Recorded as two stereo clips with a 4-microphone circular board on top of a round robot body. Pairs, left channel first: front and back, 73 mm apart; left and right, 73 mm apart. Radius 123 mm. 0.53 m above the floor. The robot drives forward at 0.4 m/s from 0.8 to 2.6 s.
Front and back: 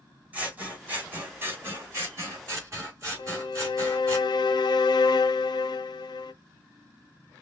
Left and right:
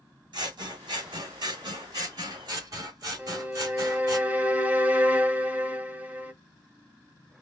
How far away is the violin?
About 0.5 m.